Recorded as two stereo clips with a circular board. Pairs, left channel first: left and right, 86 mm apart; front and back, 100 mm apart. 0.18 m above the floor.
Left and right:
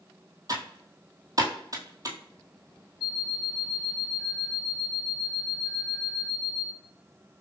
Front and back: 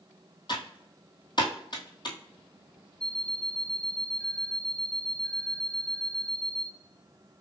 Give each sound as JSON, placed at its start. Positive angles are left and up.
{"t": 0.5, "sound": "typing on a keyboard", "azimuth_deg": -40, "distance_m": 1.2}
{"t": 3.0, "sound": "an alarm clock", "azimuth_deg": 0, "distance_m": 3.0}